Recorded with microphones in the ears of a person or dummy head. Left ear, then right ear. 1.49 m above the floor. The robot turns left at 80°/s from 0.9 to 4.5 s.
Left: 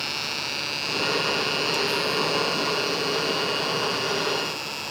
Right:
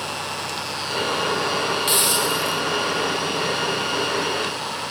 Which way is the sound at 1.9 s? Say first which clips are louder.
Right 4 dB; 55° right.